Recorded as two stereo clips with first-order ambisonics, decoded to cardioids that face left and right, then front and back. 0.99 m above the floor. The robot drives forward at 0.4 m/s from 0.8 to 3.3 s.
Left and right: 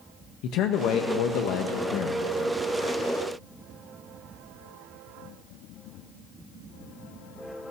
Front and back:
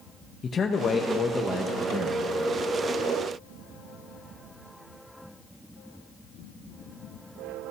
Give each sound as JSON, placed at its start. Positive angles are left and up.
{"t": 0.4, "sound": "a man speaking", "azimuth_deg": 65, "distance_m": 0.8}